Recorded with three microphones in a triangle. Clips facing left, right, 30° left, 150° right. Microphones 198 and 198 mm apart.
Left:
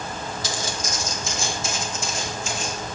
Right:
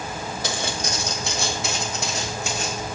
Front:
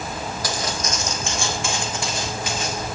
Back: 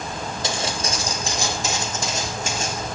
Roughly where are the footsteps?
Right.